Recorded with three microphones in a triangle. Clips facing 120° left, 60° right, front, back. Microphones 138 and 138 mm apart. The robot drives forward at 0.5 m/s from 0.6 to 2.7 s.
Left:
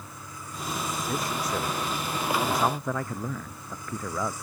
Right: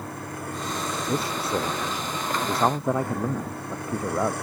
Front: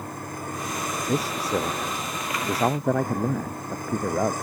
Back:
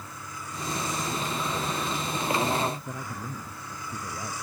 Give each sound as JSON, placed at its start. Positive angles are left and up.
{"t": 0.0, "sound": "a vehicle", "azimuth_deg": -35}
{"t": 1.1, "sound": "a man speaking", "azimuth_deg": 0}